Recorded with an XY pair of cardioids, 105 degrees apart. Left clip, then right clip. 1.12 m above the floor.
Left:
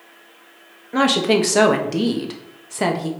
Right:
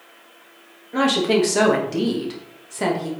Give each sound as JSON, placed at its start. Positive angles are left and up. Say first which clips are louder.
{"t": 0.9, "sound": "a woman speaking", "louder": "left 2 dB", "azimuth_deg": 30, "distance_m": 0.8}